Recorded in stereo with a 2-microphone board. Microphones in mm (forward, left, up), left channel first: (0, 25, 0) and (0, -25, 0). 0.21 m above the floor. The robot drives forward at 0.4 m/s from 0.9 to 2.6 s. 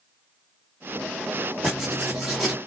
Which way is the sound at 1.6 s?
5° right (ahead or behind).